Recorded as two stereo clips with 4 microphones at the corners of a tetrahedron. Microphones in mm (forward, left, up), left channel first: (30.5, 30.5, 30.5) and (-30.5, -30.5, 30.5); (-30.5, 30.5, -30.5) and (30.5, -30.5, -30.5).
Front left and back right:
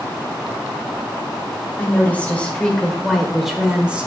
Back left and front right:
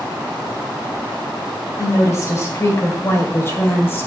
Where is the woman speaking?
105° left, 1.9 m; by 4.1 s 165° left, 1.5 m.